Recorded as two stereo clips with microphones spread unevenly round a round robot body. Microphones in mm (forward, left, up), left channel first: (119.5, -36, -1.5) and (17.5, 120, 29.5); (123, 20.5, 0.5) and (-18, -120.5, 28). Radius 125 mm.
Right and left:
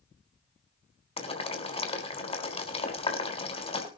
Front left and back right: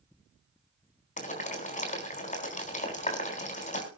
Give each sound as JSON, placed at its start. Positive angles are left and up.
{"t": 1.2, "sound": "boiling", "azimuth_deg": -5, "distance_m": 4.0}